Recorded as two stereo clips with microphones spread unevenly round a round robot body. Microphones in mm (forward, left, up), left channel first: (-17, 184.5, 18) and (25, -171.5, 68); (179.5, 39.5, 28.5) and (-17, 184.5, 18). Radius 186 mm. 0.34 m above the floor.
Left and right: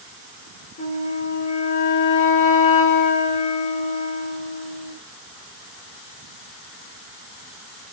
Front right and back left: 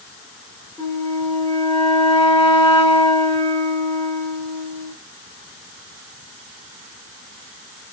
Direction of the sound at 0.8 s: 45° left.